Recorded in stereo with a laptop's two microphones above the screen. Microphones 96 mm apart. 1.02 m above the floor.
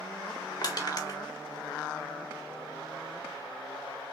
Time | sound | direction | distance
0.6 | crushing | 45° left (ahead or behind) | 1.3 m